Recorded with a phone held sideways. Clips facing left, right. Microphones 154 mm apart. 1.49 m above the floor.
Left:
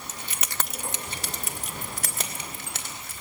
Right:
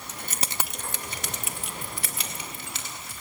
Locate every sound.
0.1 s keys jangling: 60° right (ahead or behind), 0.8 m; by 3.2 s 50° left (ahead or behind), 4 m